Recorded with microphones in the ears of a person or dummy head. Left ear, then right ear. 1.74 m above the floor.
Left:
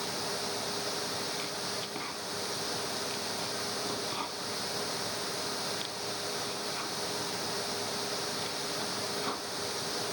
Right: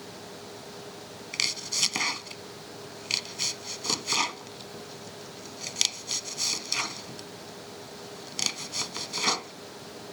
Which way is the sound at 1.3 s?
75° right (ahead or behind).